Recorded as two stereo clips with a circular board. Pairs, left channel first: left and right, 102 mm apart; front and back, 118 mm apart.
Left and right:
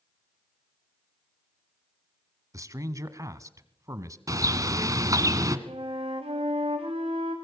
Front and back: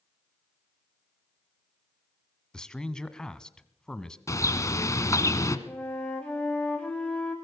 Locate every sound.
2.5 s a man speaking: 80° right, 1.2 m
4.3 s a bird: 50° right, 1.5 m
5.7 s a flute: 80° right, 6 m